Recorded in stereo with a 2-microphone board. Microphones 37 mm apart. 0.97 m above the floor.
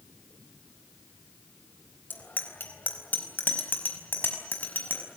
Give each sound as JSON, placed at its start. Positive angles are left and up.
{"t": 2.1, "sound": "a bicycle bell", "side_deg": 60, "distance_m": 3.5}